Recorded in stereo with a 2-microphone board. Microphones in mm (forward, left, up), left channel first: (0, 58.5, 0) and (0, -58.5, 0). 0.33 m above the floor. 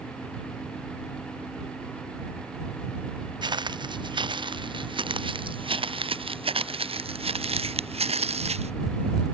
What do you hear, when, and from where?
3.4 s footsteps: 40° right (ahead or behind); by 8.7 s 65° right (ahead or behind)